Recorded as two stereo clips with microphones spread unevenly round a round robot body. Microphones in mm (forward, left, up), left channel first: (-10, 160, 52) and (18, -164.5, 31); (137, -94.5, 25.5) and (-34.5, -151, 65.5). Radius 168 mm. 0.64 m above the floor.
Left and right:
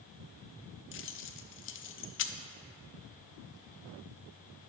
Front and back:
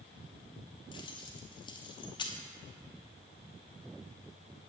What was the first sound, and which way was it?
Keys jangling, 55° left.